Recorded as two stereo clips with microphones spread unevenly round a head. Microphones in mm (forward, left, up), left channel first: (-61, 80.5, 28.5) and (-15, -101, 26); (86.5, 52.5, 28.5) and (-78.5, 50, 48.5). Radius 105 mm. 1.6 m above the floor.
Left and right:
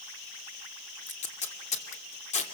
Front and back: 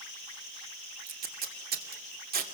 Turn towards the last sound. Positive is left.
turn(degrees=155)